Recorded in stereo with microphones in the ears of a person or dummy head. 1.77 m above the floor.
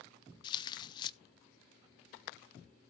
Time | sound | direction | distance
0.4 | tearing paper | 20° left (ahead or behind) | 0.6 m